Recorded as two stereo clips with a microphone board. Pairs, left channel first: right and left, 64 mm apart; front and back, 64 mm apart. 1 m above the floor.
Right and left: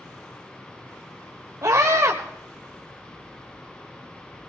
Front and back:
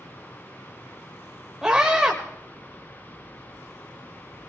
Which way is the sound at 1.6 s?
100° left.